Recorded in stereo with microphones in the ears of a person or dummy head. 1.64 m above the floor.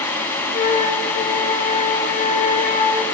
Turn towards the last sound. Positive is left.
turn(degrees=35)  # may be behind; listen again after turning